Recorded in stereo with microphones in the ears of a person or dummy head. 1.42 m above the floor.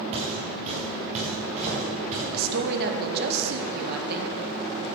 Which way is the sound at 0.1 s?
35° right (ahead or behind).